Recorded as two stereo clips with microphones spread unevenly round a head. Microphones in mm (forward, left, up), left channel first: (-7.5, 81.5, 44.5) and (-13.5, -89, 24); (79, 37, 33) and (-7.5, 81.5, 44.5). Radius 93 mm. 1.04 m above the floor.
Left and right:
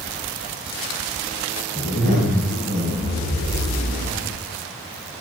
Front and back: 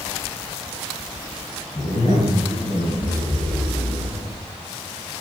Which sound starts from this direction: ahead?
A zipper, at 1.8 s.